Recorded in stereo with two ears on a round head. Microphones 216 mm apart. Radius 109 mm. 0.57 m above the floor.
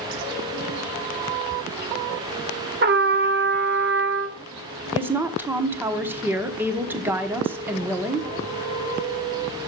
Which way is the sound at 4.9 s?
10° right (ahead or behind).